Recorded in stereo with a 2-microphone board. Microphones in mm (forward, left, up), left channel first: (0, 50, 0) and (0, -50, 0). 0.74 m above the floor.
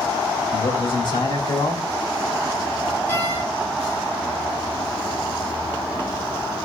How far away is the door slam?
About 9 m.